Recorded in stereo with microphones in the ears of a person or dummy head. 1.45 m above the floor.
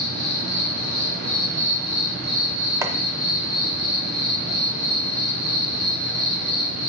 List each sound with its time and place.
0.0 s an insect: 80° right, 3.5 m
2.8 s chopping: 10° right (ahead or behind), 0.6 m